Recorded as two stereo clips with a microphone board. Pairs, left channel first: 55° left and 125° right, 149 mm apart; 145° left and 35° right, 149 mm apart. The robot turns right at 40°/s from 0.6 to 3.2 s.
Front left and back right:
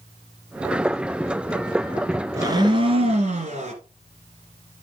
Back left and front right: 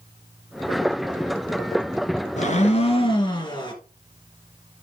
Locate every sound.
2.4 s a blender: 170° left, 2.0 m; by 3.7 s 160° right, 2.0 m